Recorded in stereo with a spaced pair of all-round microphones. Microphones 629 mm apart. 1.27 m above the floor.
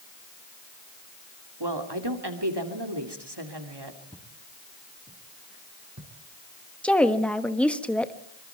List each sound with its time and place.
1.6 s a woman speaking: 40° right (ahead or behind), 3 m
4.1 s footsteps: 5° right (ahead or behind), 3.5 m; by 6.1 s 25° right (ahead or behind), 4 m
6.8 s a woman speaking: centre (ahead or behind), 1.3 m